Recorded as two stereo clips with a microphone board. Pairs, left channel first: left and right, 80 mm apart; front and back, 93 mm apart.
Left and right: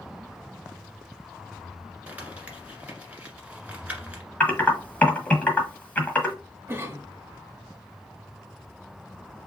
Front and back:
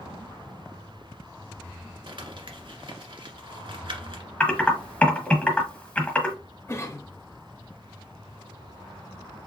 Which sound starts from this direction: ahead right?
A cough, at 6.7 s.